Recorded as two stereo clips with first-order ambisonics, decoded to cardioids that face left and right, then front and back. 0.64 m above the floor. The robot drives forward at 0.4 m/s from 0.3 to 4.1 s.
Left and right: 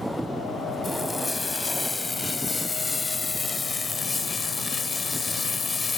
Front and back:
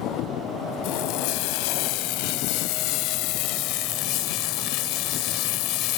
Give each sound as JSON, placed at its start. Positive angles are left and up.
{"t": 0.8, "sound": "frying", "azimuth_deg": 10}